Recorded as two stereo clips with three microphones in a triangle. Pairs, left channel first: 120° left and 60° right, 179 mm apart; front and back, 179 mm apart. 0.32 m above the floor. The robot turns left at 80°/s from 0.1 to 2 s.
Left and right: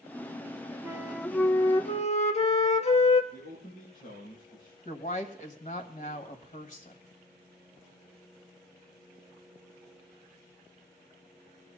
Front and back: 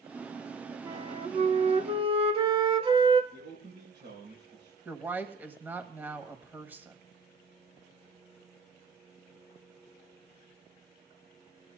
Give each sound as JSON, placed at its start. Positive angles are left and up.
{"t": 0.8, "sound": "a flute", "azimuth_deg": -125, "distance_m": 0.8}
{"t": 3.3, "sound": "a man speaking", "azimuth_deg": 165, "distance_m": 6.0}
{"t": 4.8, "sound": "a woman speaking", "azimuth_deg": 105, "distance_m": 1.5}